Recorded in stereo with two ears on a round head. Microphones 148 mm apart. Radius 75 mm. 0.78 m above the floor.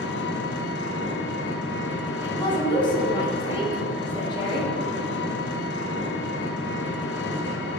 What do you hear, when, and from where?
0.0 s an engine running: 70° left (ahead or behind), 0.7 m
2.2 s a woman speaking: 30° left (ahead or behind), 1.6 m